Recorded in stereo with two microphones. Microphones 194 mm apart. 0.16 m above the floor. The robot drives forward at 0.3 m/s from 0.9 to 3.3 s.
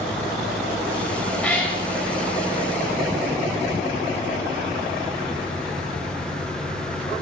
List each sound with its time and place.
1.4 s a cat meowing: 5° left (ahead or behind), 8 m